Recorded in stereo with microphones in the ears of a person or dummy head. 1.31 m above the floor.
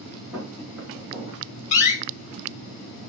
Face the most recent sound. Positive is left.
turn(degrees=40)  # may be behind; listen again after turning